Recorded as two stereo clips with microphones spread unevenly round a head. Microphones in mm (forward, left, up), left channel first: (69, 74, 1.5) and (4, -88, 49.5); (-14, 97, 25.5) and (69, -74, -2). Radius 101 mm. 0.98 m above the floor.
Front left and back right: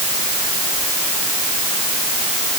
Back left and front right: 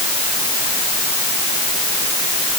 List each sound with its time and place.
Only background noise.